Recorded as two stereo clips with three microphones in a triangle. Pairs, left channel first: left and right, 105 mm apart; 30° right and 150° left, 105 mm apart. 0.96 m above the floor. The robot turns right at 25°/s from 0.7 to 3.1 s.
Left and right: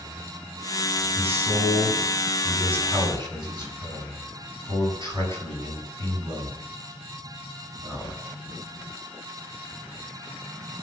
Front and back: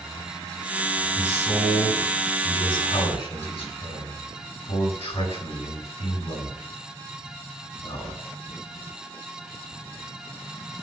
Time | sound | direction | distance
1.1 | a man speaking | 90° right | 6.5 m